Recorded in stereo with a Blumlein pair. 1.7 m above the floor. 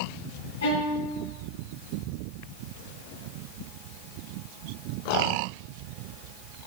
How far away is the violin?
About 1.4 m.